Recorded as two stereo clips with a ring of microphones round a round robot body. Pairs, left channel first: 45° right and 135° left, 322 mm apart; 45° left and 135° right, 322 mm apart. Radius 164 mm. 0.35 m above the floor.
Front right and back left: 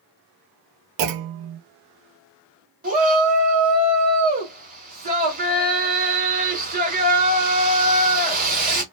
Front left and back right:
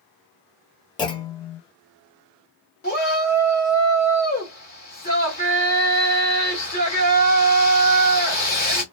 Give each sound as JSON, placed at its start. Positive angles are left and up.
{"t": 1.0, "sound": "a clunk", "azimuth_deg": 120, "distance_m": 0.5}
{"t": 2.8, "sound": "a shout", "azimuth_deg": 90, "distance_m": 1.8}